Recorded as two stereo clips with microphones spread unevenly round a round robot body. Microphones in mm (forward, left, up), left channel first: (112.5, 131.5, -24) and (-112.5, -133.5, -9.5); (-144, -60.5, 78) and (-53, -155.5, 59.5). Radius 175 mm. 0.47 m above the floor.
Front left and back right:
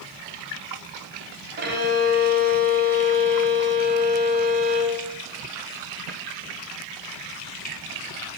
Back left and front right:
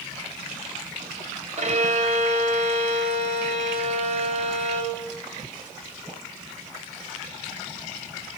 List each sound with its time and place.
1.6 s a violin: 70° right, 3.5 m